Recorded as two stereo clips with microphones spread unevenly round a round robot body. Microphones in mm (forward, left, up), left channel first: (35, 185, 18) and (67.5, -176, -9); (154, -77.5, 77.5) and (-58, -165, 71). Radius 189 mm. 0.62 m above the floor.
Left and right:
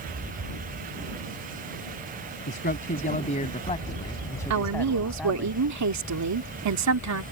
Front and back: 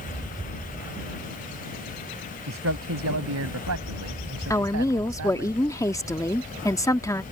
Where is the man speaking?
160° left; by 5.5 s 175° right.